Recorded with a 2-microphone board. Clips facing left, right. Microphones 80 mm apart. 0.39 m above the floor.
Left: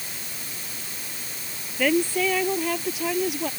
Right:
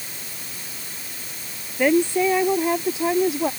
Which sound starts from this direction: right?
A woman speaking, at 1.8 s.